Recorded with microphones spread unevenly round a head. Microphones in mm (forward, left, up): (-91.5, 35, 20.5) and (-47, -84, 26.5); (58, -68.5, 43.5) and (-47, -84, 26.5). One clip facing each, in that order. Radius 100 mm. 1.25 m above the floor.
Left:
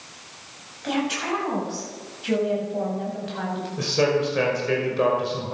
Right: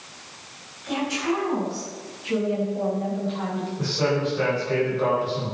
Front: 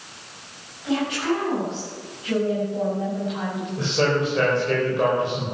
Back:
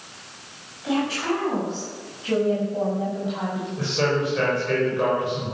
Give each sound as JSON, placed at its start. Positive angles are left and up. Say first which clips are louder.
{"t": 0.8, "sound": "a woman speaking", "louder": "even, front 1 dB", "azimuth_deg": 125, "distance_m": 8.0}
{"t": 3.8, "sound": "a man speaking", "louder": "left 3 dB, front 2 dB", "azimuth_deg": 80, "distance_m": 5.5}